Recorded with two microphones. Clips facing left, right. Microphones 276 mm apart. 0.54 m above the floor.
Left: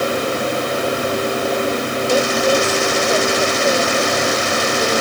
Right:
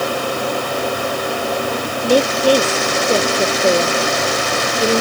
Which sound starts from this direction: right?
A woman speaking, at 2.0 s.